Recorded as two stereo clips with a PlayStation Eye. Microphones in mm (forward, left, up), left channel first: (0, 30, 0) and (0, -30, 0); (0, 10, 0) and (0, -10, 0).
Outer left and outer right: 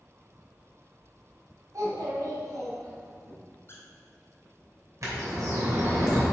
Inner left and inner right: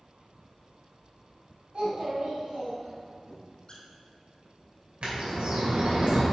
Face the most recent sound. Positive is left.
turn(degrees=-60)  # may be behind; listen again after turning